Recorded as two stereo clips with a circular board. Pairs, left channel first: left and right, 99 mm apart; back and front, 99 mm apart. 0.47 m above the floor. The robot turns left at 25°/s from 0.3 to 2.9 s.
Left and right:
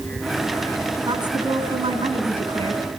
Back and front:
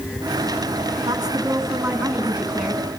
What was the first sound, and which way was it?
A woman speaking, 45° right.